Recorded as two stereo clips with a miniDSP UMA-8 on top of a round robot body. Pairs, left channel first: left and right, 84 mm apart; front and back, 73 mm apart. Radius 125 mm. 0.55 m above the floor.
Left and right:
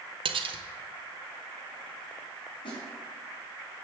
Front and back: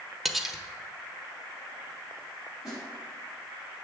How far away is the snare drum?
About 5 m.